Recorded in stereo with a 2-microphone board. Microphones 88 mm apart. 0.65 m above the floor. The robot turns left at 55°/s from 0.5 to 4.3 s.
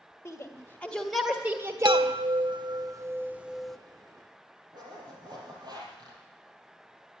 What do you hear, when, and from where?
0.2 s a shout: 30° left (ahead or behind), 1.7 m; by 2.1 s 50° right (ahead or behind), 1.7 m
1.9 s a chime: 80° right, 0.5 m; by 3.8 s 175° left, 0.5 m
4.7 s a zipper: 55° right (ahead or behind), 5 m